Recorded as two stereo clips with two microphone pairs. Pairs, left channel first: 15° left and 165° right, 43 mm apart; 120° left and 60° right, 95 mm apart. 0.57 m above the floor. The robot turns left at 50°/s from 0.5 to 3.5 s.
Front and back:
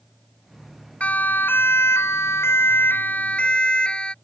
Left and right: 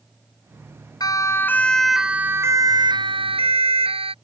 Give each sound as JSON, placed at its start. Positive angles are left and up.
{"t": 1.0, "sound": "a siren", "azimuth_deg": 75}